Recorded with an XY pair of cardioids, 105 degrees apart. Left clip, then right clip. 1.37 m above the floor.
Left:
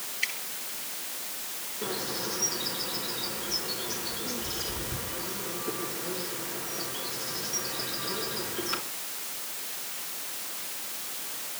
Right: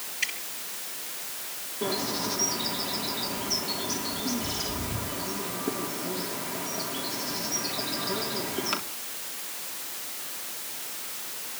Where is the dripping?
70° right, 10 m.